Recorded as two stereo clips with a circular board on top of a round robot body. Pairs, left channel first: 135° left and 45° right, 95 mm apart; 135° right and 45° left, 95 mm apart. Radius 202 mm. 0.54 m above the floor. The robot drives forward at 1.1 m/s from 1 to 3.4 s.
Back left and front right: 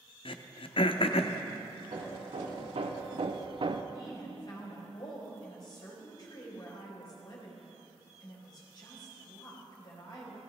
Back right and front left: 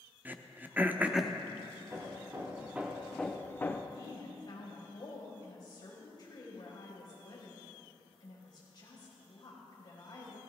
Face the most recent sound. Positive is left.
turn(degrees=180)